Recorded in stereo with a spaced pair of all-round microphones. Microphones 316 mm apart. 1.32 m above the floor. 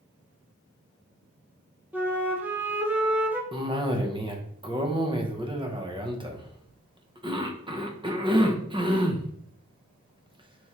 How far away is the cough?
About 0.7 m.